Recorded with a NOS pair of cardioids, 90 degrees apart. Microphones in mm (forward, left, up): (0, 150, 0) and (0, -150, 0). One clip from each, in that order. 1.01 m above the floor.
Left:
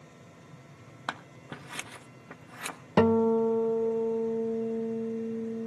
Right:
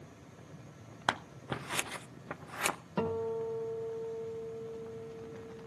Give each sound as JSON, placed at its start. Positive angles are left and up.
{"t": 1.1, "sound": "scissors", "azimuth_deg": -25, "distance_m": 0.6}
{"t": 3.0, "sound": "a guitar", "azimuth_deg": 60, "distance_m": 0.7}